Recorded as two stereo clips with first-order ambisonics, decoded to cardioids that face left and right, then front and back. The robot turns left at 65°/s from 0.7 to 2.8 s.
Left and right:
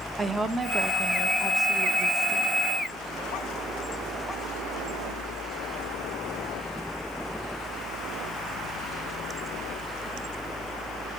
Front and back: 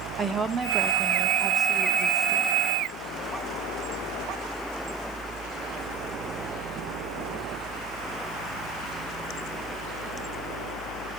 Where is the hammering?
I don't hear hammering.